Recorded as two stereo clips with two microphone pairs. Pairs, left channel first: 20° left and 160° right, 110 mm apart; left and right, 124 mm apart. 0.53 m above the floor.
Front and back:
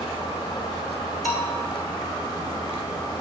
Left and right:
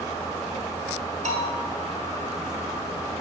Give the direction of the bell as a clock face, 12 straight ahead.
2 o'clock.